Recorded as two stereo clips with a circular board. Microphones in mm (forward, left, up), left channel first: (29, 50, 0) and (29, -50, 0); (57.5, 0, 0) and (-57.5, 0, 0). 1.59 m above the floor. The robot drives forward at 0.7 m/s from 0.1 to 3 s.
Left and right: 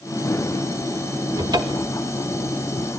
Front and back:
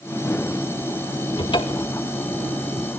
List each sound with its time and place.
1.4 s a cupboard door: 40° right, 2 m; by 2.0 s 50° right, 1.7 m